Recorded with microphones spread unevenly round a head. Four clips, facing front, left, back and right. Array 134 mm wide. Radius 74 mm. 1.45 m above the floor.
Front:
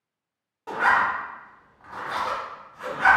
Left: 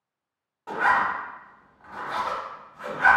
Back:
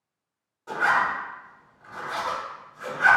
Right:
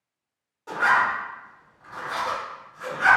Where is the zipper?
45° left, 1.5 m.